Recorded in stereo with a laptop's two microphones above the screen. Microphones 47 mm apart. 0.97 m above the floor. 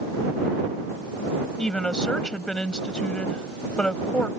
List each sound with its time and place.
1.6 s a woman speaking: 20° left (ahead or behind)